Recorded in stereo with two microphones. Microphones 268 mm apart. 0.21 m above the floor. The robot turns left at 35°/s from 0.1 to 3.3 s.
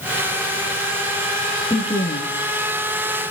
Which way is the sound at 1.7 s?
15° left (ahead or behind).